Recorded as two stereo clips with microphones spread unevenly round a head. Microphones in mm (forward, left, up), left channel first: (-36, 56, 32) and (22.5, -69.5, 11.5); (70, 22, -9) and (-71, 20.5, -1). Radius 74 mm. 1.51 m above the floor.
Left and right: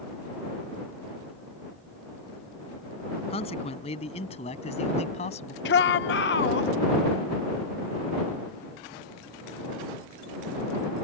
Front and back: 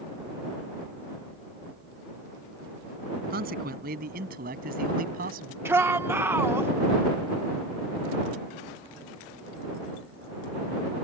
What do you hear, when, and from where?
3.3 s a man speaking: 165° left; by 5.5 s 160° left
5.7 s a shout: 105° left